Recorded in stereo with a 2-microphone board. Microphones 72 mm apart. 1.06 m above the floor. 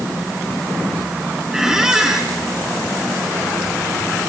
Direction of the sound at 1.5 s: 10° right (ahead or behind).